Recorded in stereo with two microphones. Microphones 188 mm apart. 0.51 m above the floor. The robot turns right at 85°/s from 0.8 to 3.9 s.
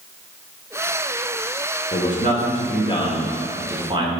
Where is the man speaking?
35° left (ahead or behind), 1.6 m; by 4.1 s 25° right (ahead or behind), 1.6 m.